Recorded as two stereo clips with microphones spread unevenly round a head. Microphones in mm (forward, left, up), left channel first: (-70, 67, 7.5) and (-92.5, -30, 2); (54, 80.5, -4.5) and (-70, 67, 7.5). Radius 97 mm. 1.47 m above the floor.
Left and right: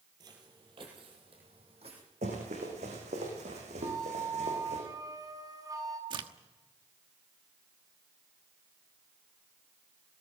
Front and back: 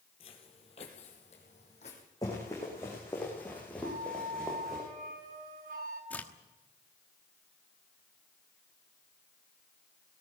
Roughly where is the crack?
Right.